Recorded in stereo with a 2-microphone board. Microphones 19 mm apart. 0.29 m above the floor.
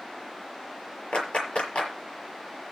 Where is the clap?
65° left (ahead or behind), 6.5 m.